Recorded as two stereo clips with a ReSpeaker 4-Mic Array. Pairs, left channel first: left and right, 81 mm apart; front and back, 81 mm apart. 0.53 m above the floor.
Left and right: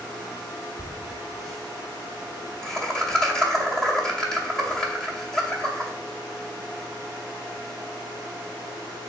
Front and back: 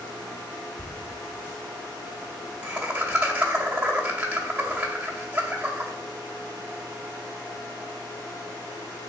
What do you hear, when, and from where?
0.8 s laughter: 155° left, 0.6 m